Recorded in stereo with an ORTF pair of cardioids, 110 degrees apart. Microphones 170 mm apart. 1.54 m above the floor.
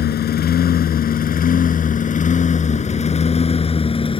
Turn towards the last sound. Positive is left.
turn(degrees=30)